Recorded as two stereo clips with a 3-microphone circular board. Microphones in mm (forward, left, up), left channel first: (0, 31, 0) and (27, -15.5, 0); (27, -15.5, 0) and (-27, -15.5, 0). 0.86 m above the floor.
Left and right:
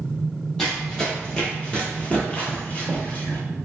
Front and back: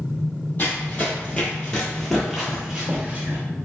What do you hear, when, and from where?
0.6 s running footsteps: 40° left, 1.3 m; by 3.4 s 150° left, 1.0 m